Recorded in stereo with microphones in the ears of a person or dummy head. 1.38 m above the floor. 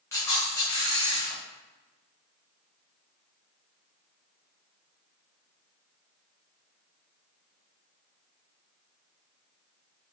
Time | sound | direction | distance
0.1 | a camera shutter | 15° left (ahead or behind) | 0.9 m